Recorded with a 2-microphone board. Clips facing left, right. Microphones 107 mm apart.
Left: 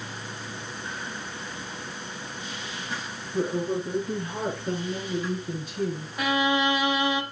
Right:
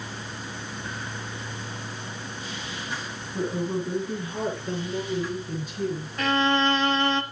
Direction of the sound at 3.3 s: 45° left (ahead or behind).